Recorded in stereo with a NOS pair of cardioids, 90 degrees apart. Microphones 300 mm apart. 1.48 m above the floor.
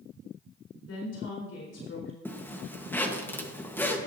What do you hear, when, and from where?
0.9 s a woman speaking: 55° left, 4 m
2.2 s a zipper: 5° left, 1.3 m